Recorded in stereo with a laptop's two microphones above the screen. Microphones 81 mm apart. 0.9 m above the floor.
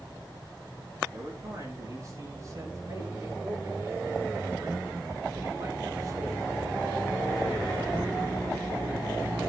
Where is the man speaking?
35° right (ahead or behind), 4.5 m; by 6.5 s 45° right (ahead or behind), 1.9 m.